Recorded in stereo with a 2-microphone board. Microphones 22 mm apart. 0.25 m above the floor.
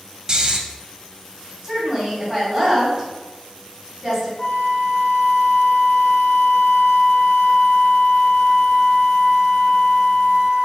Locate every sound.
0.3 s snoring: 35° right (ahead or behind), 0.5 m
1.6 s a woman speaking: 20° right (ahead or behind), 1.9 m
4.4 s a flute: 40° left (ahead or behind), 1.3 m